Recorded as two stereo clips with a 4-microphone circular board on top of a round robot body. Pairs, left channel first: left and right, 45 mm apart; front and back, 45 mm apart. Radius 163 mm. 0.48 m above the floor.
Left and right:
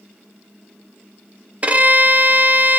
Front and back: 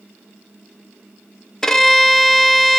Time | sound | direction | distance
1.6 | a violin | 70° right | 1.1 m